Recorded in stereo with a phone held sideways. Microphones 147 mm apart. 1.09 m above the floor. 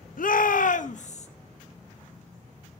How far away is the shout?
About 0.9 m.